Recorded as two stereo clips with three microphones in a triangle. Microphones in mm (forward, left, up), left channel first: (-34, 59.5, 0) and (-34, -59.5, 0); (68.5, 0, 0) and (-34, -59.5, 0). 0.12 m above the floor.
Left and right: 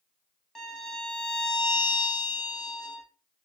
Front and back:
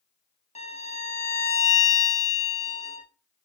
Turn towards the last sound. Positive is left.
turn(degrees=5)